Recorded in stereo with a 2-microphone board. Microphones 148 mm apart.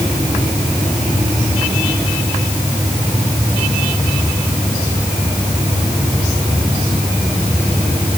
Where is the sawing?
No sawing in this recording.